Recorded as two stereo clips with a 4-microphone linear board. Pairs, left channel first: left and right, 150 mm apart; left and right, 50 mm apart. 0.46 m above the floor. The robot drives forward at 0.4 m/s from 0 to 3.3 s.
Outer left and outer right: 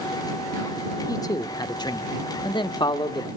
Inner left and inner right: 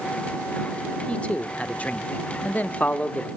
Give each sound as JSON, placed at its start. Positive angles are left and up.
{"t": 1.1, "sound": "a man speaking", "side_deg": 25, "distance_m": 1.0}